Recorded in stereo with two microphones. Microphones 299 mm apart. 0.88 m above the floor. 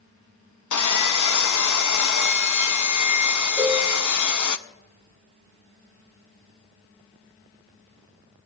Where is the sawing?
70° left (ahead or behind), 0.6 m.